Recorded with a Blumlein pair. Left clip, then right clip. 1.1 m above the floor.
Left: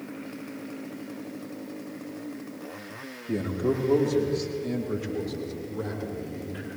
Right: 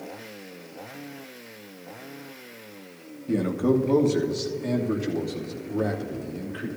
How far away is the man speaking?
About 2.0 m.